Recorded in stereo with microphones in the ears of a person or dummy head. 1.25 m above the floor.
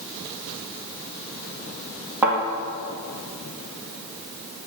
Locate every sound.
2.2 s a thud: 5° right (ahead or behind), 2.5 m